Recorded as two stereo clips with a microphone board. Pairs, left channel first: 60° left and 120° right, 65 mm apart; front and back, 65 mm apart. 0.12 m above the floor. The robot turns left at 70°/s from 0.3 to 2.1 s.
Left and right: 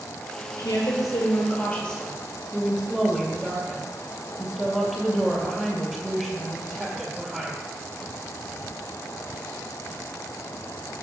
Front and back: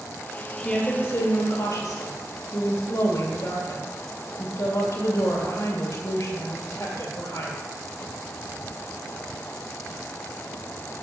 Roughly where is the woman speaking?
Left.